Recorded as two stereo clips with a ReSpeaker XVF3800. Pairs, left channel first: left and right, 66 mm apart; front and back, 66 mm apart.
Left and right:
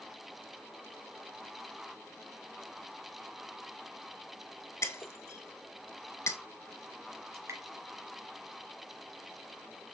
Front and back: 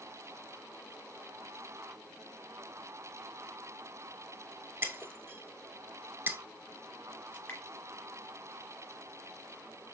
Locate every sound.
4.8 s breaking glass: 130° left, 0.5 m
7.3 s dripping: 65° right, 2.5 m